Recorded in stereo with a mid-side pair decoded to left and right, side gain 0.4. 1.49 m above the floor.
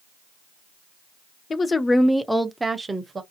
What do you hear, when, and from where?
1.5 s a woman speaking: 45° left, 0.7 m; by 3.2 s 35° right, 1.0 m